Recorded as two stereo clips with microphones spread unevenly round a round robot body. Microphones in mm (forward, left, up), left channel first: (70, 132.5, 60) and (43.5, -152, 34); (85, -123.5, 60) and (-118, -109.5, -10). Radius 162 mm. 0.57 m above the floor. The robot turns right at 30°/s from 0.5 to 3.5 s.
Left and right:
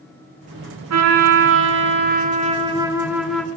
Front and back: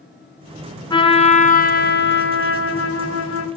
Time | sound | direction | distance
0.9 | a trumpet | 80° right | 1.8 m